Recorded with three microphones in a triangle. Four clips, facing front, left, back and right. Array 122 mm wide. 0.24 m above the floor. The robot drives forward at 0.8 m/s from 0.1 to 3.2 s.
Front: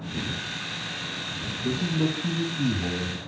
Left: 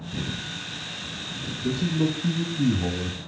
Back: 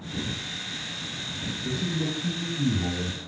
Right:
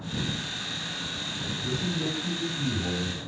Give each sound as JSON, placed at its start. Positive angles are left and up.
{"t": 1.6, "sound": "a man speaking", "azimuth_deg": 60, "distance_m": 2.5}